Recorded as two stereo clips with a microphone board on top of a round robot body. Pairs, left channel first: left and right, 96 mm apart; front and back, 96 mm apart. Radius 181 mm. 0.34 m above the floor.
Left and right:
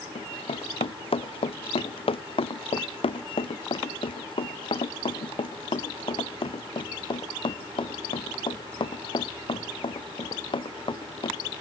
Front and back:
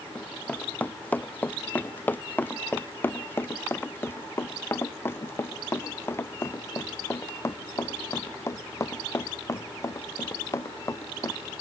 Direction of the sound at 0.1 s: 75° left.